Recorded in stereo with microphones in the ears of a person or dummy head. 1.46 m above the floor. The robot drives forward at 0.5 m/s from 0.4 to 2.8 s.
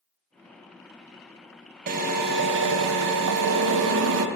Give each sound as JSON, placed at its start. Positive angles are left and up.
{"t": 1.9, "sound": "a drill", "side_deg": -45, "distance_m": 0.8}